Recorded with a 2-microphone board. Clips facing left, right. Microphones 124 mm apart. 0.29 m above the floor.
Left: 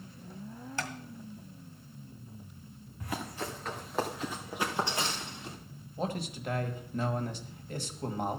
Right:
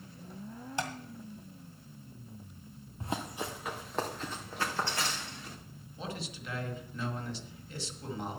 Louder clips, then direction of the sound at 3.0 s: Right 1 dB; 30° right (ahead or behind).